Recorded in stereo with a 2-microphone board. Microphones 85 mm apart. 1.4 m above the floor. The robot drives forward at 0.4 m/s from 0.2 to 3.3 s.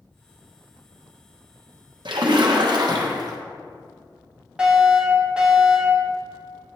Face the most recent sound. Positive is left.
turn(degrees=-10)  # may be behind; listen again after turning